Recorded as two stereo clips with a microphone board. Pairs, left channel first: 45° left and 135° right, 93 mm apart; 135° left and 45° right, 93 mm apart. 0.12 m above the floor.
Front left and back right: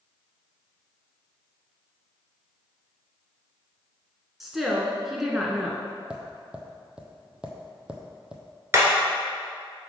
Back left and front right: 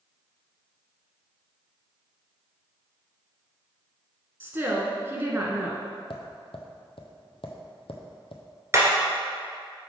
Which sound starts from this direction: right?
Hammering, at 8.7 s.